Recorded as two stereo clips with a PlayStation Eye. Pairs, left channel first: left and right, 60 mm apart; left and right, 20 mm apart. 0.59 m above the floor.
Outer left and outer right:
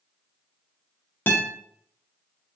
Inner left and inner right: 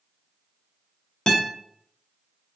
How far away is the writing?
No writing in this recording.